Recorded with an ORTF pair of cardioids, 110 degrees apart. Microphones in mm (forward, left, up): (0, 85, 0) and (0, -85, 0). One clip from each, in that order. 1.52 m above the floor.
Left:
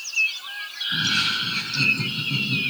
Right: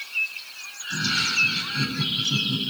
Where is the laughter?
20° left, 7.5 m.